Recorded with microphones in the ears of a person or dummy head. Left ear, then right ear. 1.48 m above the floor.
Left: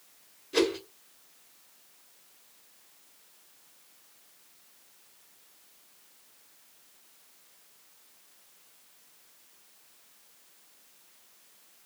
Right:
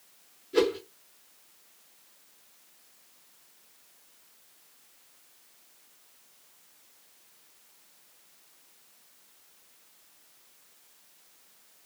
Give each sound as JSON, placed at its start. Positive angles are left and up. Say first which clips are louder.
{"t": 0.5, "sound": "a whoosh", "louder": "right 1 dB", "side_deg": 25, "distance_m": 2.0}